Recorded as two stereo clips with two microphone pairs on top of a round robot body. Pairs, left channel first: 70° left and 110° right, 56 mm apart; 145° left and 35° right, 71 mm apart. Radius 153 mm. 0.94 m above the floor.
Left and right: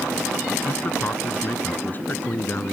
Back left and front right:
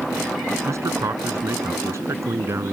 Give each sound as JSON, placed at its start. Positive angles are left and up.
{"t": 0.7, "sound": "a man speaking", "azimuth_deg": 15}